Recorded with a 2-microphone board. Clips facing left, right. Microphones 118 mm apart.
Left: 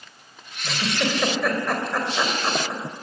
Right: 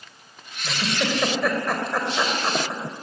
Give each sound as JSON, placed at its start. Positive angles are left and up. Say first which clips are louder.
{"t": 0.6, "sound": "a giggle", "louder": "even", "side_deg": -5, "distance_m": 3.5}